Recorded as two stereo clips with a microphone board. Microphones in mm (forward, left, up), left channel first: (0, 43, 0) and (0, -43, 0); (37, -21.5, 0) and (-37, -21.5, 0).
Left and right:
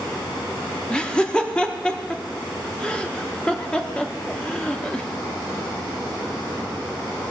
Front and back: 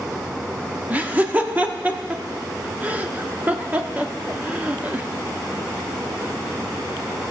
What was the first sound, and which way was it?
Laughter, 150° left.